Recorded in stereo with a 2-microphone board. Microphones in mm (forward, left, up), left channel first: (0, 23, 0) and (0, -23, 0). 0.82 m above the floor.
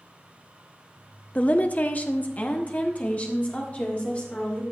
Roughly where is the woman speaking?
Left.